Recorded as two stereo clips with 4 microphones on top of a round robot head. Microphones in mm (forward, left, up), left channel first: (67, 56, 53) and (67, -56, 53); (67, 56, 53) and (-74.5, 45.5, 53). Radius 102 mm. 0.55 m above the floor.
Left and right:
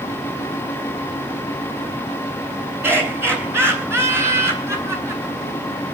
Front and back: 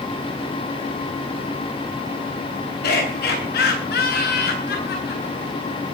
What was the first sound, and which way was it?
Laughter, 20° right.